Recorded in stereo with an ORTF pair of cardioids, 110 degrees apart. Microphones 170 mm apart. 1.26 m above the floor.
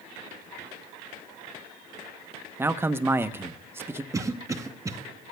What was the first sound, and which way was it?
A man speaking, 15° right.